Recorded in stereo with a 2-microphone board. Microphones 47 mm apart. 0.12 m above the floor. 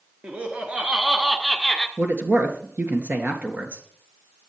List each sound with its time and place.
0.2 s laughter: 40° right (ahead or behind), 1.7 m; by 1.9 s 15° left (ahead or behind), 1.4 m
2.0 s a man speaking: 45° right (ahead or behind), 2 m